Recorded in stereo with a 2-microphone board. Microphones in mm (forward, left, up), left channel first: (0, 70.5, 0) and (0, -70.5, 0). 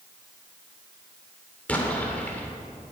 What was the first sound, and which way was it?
An explosion, 10° left (ahead or behind).